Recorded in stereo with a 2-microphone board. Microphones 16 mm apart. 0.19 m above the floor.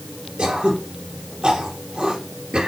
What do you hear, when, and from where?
0.4 s throat clearing: 75° right (ahead or behind), 4 m